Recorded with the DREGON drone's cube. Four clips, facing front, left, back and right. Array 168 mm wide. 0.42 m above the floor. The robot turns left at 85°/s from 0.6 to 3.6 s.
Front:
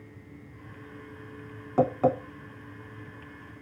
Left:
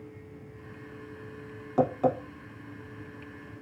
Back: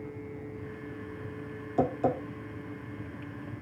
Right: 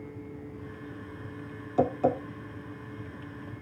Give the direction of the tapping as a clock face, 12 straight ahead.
11 o'clock.